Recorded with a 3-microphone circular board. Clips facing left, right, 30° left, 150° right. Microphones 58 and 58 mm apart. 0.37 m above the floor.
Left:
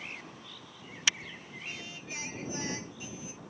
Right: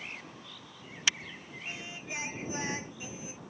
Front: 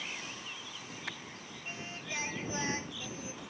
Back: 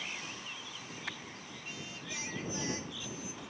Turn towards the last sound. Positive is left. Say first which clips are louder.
# right 3 dB, front 3 dB
turn(degrees=-25)